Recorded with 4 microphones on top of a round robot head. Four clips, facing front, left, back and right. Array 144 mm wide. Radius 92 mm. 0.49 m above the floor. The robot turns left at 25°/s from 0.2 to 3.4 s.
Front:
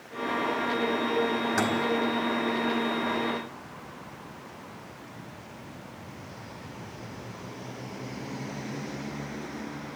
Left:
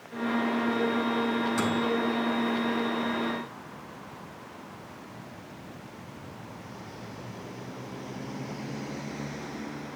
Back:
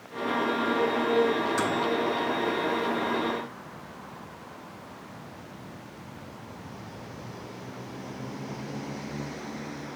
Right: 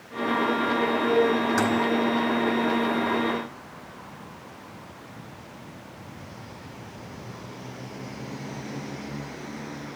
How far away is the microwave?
About 3.5 m.